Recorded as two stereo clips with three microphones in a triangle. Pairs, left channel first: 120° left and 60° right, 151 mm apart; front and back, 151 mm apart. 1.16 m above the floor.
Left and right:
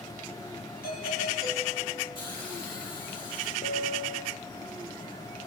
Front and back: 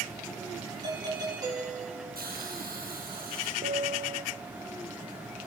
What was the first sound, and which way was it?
A doorbell, 115° left.